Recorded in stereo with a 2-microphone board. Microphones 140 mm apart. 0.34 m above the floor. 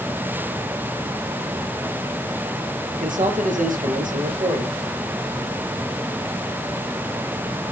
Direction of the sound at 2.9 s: 70° right (ahead or behind).